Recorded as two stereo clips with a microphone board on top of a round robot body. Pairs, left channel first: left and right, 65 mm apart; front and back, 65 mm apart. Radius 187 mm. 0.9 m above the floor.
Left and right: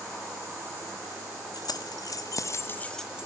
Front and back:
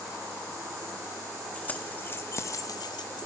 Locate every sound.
1.5 s keys jangling: 70° left, 1.3 m; by 3.3 s 15° right, 0.5 m